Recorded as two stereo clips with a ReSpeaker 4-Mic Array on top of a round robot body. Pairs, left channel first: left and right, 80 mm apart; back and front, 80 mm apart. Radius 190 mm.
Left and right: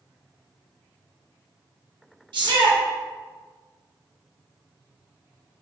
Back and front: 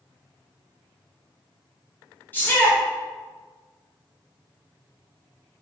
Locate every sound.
2.3 s a shout: 110° right, 0.9 m